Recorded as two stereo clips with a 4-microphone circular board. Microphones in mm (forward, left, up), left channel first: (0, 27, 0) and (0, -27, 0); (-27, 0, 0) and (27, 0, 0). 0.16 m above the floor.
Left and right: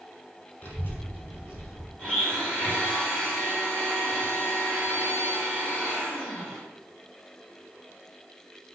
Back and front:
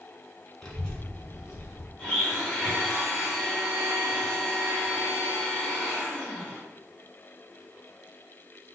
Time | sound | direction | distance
0.6 | a child speaking | 100° left | 0.7 m
2.0 | a blender | 115° left | 1.8 m